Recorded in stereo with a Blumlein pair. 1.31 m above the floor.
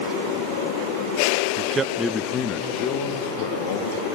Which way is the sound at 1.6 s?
40° right.